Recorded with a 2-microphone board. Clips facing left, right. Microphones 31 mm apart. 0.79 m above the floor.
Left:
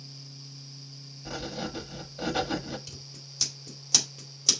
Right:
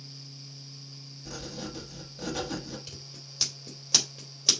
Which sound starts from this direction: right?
Scissors, at 2.9 s.